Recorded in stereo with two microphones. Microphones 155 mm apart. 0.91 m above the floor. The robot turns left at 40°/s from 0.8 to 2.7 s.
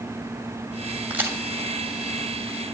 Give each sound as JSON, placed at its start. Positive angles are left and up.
{"t": 1.1, "sound": "a crack", "side_deg": -10, "distance_m": 2.5}